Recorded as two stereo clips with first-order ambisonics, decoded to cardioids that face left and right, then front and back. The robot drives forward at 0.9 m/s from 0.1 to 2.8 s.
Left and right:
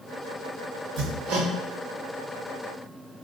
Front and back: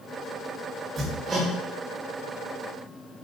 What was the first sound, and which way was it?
Hammering, 100° right.